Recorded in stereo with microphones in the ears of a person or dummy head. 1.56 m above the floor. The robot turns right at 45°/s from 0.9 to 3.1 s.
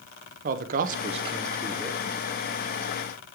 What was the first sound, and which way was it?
A man speaking, 45° right.